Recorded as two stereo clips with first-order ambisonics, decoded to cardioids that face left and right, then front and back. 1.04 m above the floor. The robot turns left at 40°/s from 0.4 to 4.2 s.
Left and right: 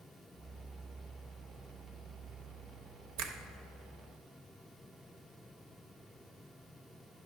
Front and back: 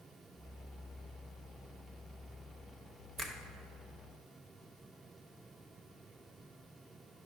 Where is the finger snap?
105° right, 0.9 m; by 3.4 s 115° right, 0.9 m.